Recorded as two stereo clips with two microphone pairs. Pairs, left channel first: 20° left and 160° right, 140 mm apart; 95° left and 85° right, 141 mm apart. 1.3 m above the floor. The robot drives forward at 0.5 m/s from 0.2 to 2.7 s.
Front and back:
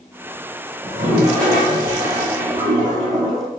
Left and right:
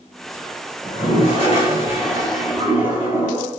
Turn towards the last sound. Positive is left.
turn(degrees=145)